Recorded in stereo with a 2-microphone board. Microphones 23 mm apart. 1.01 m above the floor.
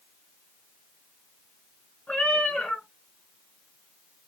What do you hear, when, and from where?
2.1 s a cat meowing: 70° left (ahead or behind), 2.0 m